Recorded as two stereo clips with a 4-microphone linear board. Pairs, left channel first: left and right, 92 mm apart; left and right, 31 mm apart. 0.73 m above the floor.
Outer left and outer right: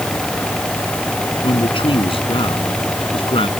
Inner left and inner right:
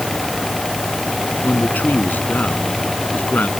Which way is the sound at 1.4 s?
70° left (ahead or behind).